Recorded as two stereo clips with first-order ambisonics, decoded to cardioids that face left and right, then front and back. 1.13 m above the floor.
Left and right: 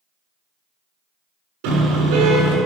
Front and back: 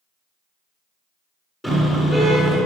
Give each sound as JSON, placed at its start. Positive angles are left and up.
{"t": 1.6, "sound": "a car horn", "azimuth_deg": -85, "distance_m": 7.0}